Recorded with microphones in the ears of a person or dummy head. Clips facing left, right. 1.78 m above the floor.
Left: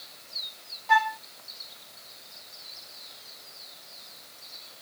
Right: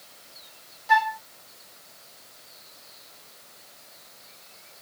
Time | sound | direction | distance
0.9 | a flute | 10° right (ahead or behind) | 0.8 m